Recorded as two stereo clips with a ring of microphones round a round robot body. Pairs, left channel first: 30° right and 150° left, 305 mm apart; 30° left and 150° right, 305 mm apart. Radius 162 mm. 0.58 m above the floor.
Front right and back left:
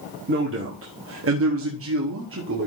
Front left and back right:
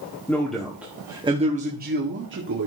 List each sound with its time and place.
0.3 s a man speaking: 110° left, 1.8 m; by 2.7 s 175° right, 1.8 m